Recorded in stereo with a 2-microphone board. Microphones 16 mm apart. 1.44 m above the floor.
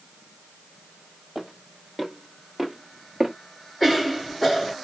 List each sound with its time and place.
1.4 s footsteps: 15° right (ahead or behind), 2.5 m; by 3.3 s centre (ahead or behind), 1.5 m
3.8 s a cough: 5° left (ahead or behind), 1.4 m